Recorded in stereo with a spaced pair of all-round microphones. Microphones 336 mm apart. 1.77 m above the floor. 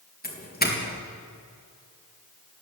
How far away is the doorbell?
About 3.5 m.